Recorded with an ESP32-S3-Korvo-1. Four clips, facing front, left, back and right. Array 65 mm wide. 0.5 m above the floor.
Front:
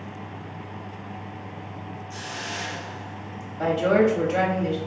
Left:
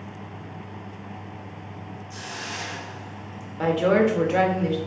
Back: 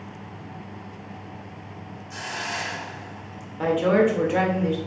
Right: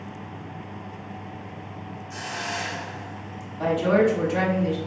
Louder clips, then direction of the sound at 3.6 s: Left 1 dB, even; 110° left.